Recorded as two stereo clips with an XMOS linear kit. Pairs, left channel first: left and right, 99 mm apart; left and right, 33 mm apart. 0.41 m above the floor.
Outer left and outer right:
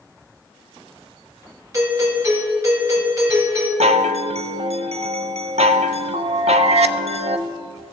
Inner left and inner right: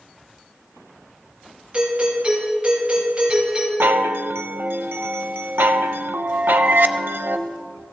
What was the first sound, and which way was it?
A doorbell, 30° right (ahead or behind).